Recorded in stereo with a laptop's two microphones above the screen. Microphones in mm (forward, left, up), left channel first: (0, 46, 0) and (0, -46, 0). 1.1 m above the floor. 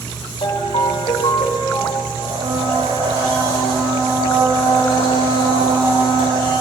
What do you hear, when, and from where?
0.4 s a ringtone: 75° left (ahead or behind), 3.5 m
2.2 s a blender: 85° right, 9 m